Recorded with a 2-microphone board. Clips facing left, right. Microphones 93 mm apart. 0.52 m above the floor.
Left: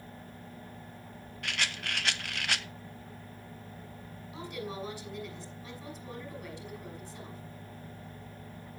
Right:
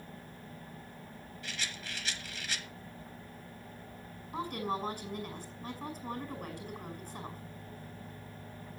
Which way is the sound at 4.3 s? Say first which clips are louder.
Right 4 dB; 45° right (ahead or behind).